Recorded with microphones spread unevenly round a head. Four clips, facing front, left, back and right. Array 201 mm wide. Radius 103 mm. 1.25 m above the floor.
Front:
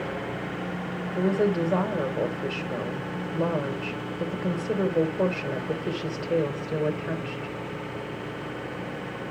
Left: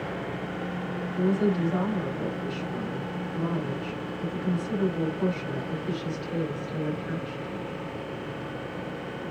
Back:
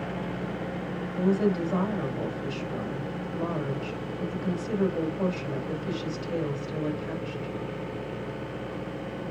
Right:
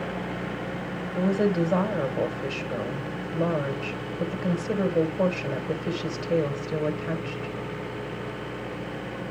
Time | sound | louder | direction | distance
1.1 | a woman speaking | right 2 dB, front 1 dB | 45° right | 5 m